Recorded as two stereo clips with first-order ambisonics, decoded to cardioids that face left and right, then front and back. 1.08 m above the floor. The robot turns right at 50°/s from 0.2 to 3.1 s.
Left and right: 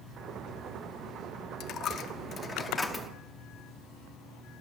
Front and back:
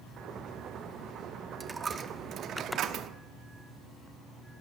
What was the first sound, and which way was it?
A dropped coin, 105° left.